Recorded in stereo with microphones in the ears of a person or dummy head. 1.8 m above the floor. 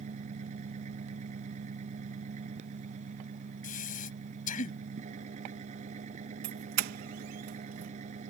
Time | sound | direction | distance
0.0 | an engine running | 45° right (ahead or behind) | ?
3.6 | breathing | 55° left (ahead or behind) | ?
6.4 | a doorbell | 65° right (ahead or behind) | ?